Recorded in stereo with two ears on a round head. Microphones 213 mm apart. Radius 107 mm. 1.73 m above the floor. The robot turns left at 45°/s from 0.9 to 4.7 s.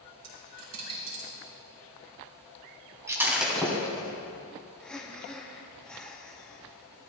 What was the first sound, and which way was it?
A dropped coin, 70° right (ahead or behind).